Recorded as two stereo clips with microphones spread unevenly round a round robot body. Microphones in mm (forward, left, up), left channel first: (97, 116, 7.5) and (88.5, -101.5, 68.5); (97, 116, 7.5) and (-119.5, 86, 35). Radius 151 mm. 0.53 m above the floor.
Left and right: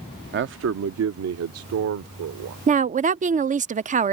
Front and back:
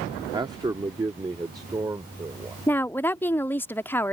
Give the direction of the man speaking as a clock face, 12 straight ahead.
3 o'clock.